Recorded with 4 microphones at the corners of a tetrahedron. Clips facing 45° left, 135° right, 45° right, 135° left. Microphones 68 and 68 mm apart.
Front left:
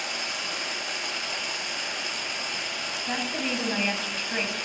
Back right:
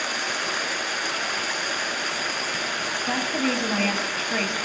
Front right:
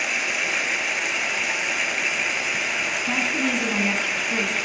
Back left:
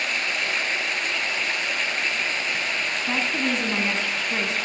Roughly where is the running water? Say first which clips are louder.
Back right 6 dB, front right 1 dB; behind right.